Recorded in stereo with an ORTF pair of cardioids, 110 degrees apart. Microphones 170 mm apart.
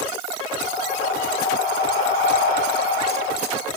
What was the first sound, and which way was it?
Breathing, 60° left.